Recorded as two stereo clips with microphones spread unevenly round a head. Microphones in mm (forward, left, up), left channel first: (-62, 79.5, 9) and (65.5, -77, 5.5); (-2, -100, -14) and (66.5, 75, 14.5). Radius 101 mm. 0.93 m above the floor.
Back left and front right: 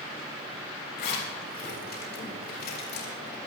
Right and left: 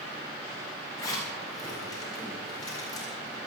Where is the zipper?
175° left, 3.5 m.